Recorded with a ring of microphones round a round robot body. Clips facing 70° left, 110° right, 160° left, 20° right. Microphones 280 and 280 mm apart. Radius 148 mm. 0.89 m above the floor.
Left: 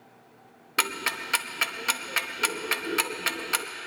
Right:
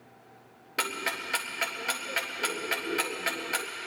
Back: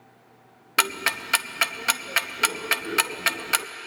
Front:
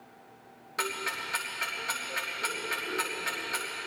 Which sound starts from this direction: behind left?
Ticking, at 0.8 s.